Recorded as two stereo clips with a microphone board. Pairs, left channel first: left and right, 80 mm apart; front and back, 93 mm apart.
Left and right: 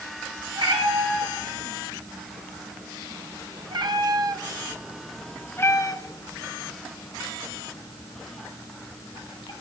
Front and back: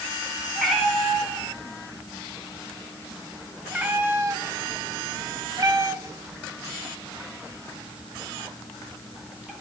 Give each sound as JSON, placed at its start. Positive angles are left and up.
{"t": 0.6, "sound": "a cat meowing", "azimuth_deg": -95, "distance_m": 2.5}